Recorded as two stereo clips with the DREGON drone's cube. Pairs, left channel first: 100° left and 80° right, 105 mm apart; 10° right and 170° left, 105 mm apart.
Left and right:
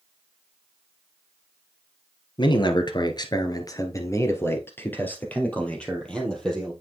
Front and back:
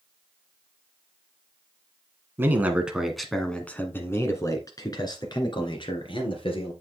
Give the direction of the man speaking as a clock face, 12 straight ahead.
8 o'clock.